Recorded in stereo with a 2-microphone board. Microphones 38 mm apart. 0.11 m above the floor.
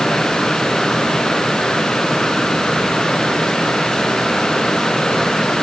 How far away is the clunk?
I don't hear a clunk.